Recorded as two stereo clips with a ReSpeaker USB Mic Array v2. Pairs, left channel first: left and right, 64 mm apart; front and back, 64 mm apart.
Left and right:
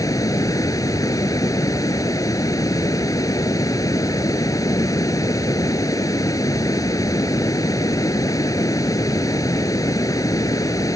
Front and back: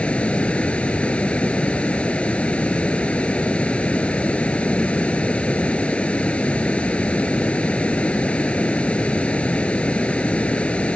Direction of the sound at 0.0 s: 70° left.